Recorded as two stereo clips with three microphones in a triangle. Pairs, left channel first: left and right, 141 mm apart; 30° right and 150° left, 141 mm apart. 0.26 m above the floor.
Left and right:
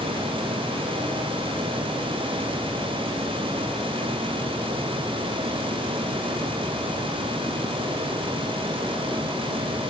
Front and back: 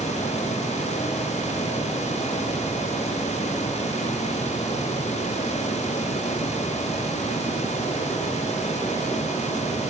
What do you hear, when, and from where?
Only background noise.